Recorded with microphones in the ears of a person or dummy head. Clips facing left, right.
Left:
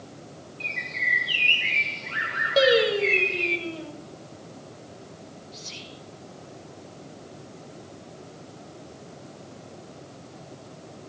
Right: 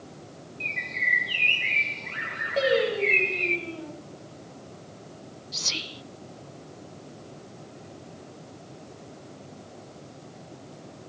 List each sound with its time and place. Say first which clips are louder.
0.6 s a bird: even; 10° left (ahead or behind), 2 m
2.6 s singing: left 3 dB; 65° left (ahead or behind), 4.5 m
5.5 s whispering: right 2 dB; 75° right (ahead or behind), 0.7 m